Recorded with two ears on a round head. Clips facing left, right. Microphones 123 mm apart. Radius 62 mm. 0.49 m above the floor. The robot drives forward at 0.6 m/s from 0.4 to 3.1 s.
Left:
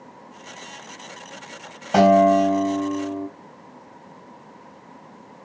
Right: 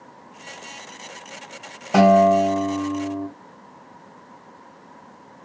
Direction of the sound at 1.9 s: 5° right (ahead or behind).